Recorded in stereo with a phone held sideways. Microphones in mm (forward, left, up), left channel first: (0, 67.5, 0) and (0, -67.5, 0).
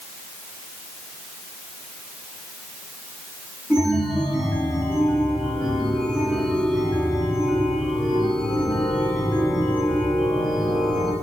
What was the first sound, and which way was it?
A chime, 5° right (ahead or behind).